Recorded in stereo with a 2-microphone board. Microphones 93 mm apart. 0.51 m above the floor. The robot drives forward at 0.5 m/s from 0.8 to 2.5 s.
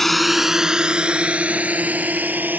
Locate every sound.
0.0 s a drone: 5° left (ahead or behind); by 2.6 s 20° right (ahead or behind)